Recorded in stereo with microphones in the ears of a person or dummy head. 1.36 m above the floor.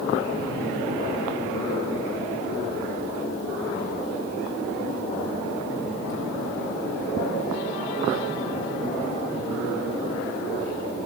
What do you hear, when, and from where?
Only background noise.